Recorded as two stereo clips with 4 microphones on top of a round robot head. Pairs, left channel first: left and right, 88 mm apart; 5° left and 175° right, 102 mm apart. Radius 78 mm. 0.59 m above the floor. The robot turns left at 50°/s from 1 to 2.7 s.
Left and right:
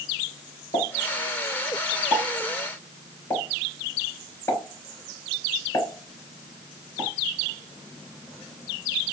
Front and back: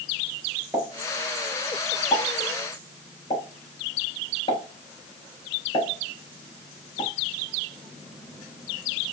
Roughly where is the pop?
Behind left.